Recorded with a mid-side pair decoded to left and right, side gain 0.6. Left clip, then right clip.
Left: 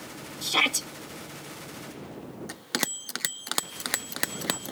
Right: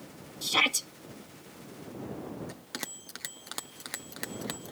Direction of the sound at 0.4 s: 15° left.